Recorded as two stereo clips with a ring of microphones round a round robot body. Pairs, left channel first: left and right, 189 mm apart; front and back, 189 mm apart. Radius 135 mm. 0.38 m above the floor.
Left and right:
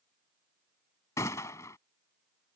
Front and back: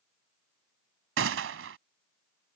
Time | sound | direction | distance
1.2 | a gunshot | 170° left | ?